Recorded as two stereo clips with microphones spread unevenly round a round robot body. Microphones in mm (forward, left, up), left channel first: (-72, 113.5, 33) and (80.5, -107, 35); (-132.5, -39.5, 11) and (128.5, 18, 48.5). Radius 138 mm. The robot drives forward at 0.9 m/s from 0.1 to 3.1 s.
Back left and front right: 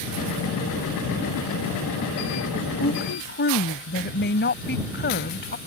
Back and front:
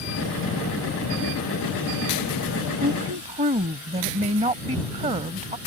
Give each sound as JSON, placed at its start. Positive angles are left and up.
{"t": 2.8, "sound": "a woman speaking", "azimuth_deg": 75}